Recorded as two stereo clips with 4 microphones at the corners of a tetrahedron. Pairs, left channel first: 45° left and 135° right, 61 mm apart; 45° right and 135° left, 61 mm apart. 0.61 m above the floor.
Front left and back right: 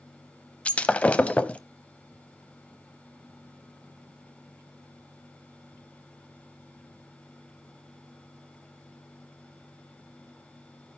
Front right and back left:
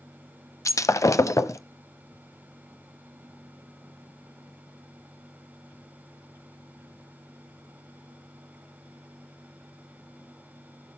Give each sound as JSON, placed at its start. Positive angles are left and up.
{"t": 0.7, "sound": "breaking glass", "azimuth_deg": -25, "distance_m": 0.7}